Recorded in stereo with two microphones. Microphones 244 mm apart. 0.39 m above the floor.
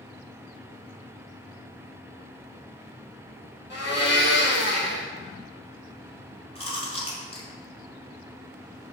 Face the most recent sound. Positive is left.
turn(degrees=25)  # may be behind; listen again after turning